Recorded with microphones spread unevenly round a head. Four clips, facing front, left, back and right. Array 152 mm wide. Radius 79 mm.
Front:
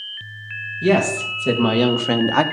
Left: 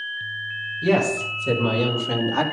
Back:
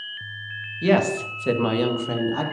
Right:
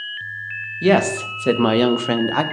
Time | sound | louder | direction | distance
0.8 | a woman speaking | right 4 dB, front 2 dB | 90° right | 1.6 m